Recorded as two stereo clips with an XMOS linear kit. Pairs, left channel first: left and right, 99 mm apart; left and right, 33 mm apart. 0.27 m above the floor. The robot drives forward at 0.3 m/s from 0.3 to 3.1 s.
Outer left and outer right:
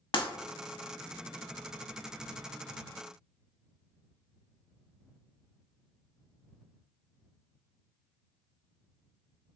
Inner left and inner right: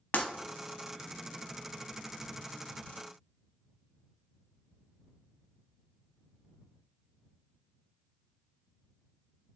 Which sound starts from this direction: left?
Breaking glass, at 0.1 s.